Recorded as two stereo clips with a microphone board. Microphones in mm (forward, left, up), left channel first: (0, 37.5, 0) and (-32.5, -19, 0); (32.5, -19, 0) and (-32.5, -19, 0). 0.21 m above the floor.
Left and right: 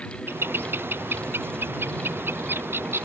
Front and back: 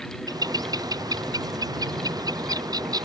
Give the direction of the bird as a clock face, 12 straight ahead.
6 o'clock.